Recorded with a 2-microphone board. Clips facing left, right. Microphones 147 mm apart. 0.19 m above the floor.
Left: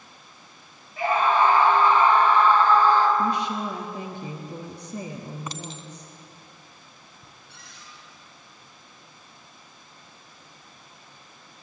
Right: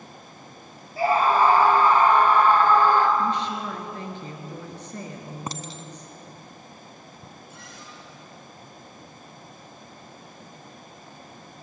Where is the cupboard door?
75° left (ahead or behind), 9.5 m.